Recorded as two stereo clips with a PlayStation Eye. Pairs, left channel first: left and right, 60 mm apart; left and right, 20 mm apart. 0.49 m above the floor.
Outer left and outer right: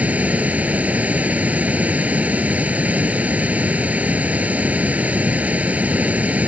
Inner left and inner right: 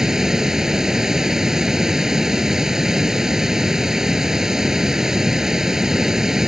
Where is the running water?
25° right (ahead or behind).